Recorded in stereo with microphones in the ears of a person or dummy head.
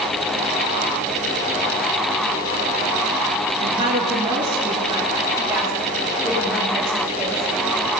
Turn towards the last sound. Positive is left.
turn(degrees=0)  # may be behind; listen again after turning